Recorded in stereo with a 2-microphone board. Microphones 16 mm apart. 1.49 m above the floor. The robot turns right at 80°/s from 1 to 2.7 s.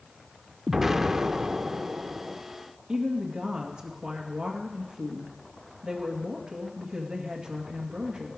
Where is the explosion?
160° right, 0.6 m; by 2.4 s 50° right, 0.6 m.